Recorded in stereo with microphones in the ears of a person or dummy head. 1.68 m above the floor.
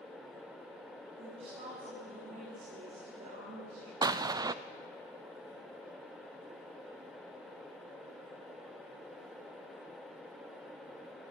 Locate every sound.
1.2 s a woman speaking: 35° right (ahead or behind), 8 m
4.0 s an explosion: 15° right (ahead or behind), 0.5 m